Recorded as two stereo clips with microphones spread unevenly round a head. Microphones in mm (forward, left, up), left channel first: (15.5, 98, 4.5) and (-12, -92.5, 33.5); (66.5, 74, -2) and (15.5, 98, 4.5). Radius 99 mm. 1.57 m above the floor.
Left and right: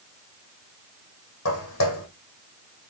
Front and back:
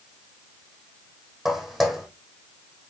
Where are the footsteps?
70° left, 3.5 m.